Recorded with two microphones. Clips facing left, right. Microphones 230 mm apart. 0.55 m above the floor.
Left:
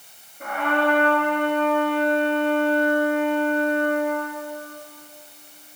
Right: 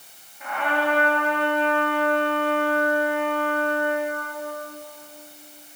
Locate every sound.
0.4 s a trumpet: 50° left (ahead or behind), 6 m